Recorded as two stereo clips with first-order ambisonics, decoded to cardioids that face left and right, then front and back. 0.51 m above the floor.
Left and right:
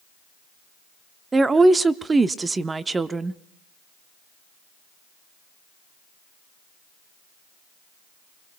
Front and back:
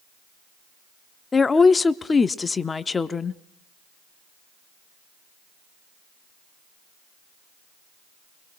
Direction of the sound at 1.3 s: 40° right.